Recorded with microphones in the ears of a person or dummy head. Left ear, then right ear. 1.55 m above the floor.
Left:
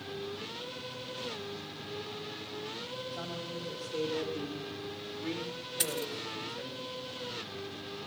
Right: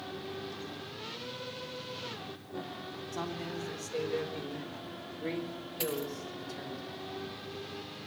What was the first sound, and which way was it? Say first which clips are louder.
A man speaking: right 1 dB; 25° right (ahead or behind).